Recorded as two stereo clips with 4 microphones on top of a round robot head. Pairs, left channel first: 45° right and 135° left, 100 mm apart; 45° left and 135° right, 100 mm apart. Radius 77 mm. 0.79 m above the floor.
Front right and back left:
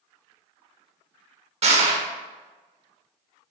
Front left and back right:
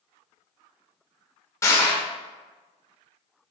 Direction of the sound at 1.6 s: 110° left.